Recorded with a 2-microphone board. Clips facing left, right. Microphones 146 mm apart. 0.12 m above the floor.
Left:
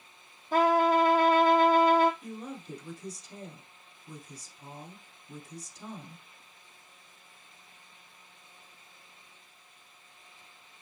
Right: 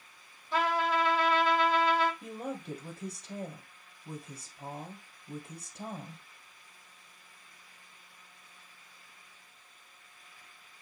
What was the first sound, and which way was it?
A trumpet, 50° left (ahead or behind).